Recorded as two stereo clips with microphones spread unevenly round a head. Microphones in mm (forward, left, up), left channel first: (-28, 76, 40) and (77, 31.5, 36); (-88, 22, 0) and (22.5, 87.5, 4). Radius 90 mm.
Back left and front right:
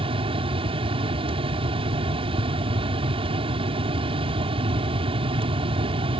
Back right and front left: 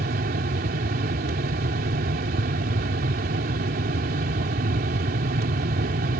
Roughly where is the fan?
Ahead.